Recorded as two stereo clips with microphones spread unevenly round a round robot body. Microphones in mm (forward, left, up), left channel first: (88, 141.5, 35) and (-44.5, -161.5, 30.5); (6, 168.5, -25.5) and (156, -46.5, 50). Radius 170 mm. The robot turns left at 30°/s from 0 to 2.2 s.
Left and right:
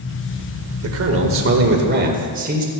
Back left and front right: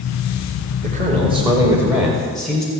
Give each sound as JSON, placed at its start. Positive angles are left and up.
{"t": 0.8, "sound": "a man speaking", "azimuth_deg": -125, "distance_m": 1.8}